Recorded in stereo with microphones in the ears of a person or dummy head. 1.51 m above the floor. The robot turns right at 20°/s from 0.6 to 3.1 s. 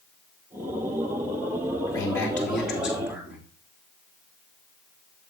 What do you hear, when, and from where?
1.9 s a man speaking: 15° left (ahead or behind), 3 m; by 3.5 s 10° right (ahead or behind), 3 m